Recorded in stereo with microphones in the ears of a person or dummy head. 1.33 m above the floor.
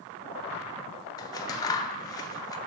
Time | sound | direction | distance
1.2 | scissors | 20° left (ahead or behind) | 0.8 m